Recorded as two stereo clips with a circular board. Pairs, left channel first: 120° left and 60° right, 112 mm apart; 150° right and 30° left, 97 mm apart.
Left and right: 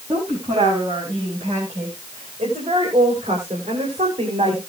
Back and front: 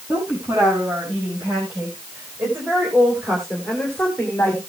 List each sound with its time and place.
0.1 s a woman speaking: 25° right, 8.5 m; by 4.6 s 85° right, 3 m